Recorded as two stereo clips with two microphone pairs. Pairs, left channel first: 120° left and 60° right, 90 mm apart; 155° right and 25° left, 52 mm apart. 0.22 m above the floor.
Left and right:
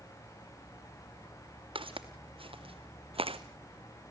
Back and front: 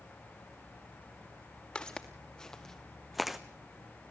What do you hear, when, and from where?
1.8 s footsteps: 85° right, 2.5 m; by 3.4 s 55° right, 0.8 m